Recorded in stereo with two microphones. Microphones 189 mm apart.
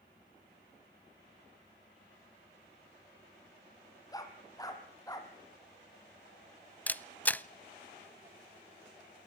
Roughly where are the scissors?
No scissors in this recording.